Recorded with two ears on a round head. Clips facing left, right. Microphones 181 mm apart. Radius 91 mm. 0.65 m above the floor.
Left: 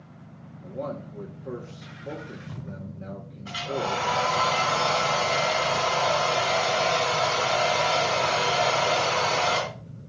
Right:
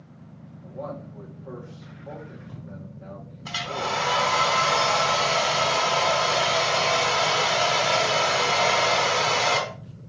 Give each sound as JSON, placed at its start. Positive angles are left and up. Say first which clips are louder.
{"t": 0.6, "sound": "a man speaking", "louder": "left 2 dB", "side_deg": 40, "distance_m": 2.0}
{"t": 3.5, "sound": "a hair dryer", "louder": "left 2 dB", "side_deg": -70, "distance_m": 3.5}